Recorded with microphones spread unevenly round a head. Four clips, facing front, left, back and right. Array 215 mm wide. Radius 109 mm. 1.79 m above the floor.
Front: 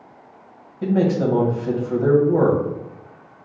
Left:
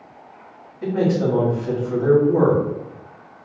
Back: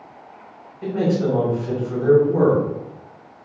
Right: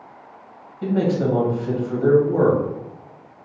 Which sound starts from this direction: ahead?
A man speaking, at 0.8 s.